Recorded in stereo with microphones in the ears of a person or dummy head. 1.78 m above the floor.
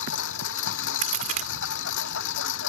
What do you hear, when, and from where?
0.0 s a lawn mower: 70° left (ahead or behind)
1.0 s a crack: 40° right (ahead or behind)